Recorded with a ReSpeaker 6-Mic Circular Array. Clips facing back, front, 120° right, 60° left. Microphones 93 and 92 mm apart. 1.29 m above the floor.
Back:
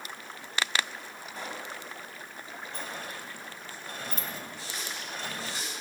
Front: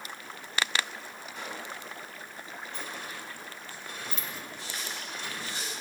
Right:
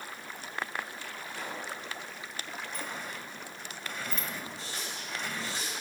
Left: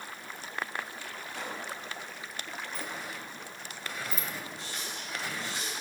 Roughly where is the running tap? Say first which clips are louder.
Even, even; behind.